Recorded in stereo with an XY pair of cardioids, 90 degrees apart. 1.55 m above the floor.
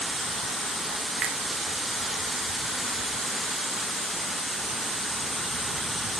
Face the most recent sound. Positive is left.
turn(degrees=-55)